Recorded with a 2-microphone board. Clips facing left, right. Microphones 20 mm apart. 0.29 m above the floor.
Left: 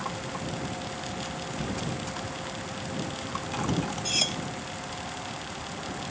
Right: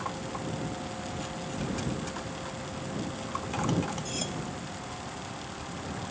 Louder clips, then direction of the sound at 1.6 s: Even; 15° left (ahead or behind).